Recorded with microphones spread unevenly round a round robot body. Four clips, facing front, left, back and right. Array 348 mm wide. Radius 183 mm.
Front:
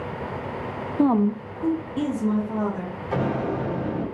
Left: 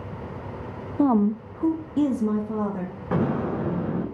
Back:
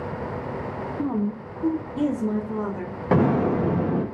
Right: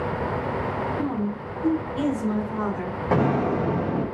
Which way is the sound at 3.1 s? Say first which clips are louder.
Right 3 dB, back 5 dB; 170° right.